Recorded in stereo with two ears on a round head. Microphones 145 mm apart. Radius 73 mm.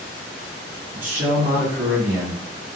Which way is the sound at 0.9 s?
35° right (ahead or behind).